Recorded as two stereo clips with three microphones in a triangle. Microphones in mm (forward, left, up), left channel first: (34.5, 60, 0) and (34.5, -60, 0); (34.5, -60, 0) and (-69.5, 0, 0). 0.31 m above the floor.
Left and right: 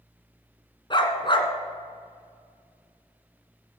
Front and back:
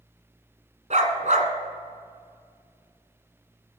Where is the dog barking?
135° left, 1.5 m.